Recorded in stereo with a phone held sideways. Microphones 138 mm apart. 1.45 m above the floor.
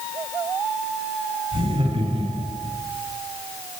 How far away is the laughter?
About 10 m.